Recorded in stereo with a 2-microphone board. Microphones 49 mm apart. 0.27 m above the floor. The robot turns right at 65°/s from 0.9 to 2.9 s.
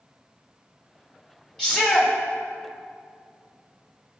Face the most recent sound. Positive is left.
turn(degrees=110)